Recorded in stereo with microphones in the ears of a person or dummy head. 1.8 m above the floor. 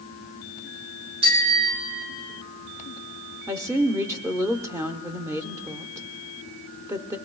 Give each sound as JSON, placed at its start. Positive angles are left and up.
{"t": 1.2, "sound": "a bicycle bell", "side_deg": -70, "distance_m": 3.0}
{"t": 3.5, "sound": "a woman speaking", "side_deg": -15, "distance_m": 0.9}